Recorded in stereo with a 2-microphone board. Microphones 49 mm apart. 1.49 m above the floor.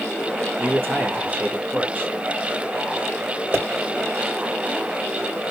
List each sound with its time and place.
0.6 s a man speaking: 40° right (ahead or behind), 2.5 m
3.5 s a pop: 45° right (ahead or behind), 3 m